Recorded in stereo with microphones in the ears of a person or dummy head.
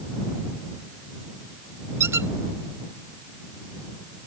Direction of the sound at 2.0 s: 15° right (ahead or behind).